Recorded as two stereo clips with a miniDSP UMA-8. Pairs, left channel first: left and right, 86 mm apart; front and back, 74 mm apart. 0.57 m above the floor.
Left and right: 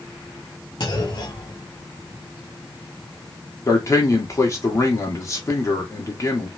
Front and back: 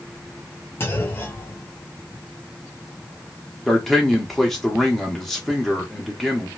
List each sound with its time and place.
0.8 s a clunk: 55° left, 1.5 m
3.7 s a man speaking: 85° left, 1.5 m